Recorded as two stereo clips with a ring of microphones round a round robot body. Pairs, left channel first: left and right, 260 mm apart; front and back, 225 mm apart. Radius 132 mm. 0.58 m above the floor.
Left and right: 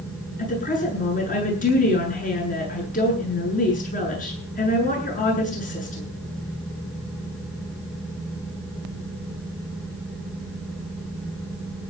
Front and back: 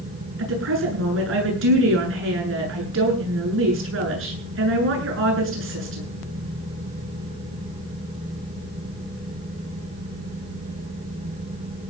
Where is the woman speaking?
150° left, 9 m.